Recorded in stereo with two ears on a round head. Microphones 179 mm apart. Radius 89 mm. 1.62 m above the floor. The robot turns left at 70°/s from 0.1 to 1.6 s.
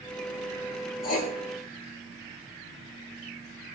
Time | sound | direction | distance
1.0 | writing | 45° left (ahead or behind) | 4 m